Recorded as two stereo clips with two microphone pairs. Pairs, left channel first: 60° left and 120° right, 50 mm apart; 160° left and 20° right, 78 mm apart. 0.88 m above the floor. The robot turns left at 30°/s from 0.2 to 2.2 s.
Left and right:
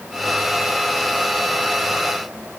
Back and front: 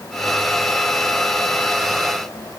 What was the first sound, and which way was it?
Only background noise.